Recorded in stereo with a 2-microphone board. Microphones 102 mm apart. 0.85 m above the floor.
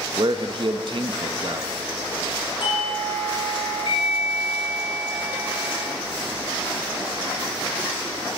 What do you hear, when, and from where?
0.2 s a man speaking: 55° right (ahead or behind), 0.6 m
2.6 s a doorbell: 65° left (ahead or behind), 3 m